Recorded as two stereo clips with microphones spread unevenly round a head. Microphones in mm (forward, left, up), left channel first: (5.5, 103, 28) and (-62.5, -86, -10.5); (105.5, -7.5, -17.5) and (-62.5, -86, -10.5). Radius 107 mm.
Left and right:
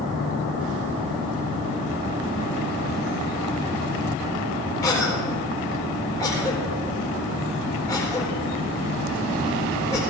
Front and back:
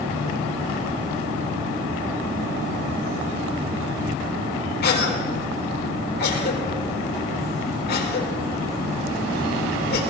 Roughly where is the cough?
Ahead.